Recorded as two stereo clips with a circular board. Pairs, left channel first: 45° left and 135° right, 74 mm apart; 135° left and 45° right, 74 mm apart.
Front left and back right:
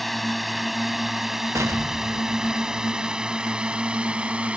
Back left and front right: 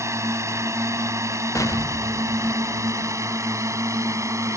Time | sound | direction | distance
0.0 | a drone | 45° right | ?
1.6 | an explosion | 175° left | ?